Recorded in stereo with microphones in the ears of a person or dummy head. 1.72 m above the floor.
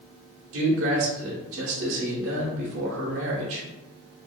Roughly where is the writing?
I don't hear writing.